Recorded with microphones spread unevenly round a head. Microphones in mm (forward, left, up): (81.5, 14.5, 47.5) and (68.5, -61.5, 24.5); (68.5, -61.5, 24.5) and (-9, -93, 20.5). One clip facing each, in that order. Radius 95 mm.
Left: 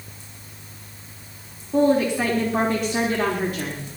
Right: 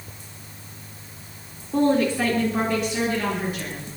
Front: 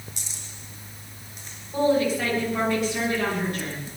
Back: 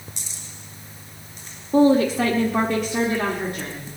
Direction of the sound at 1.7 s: 170° left.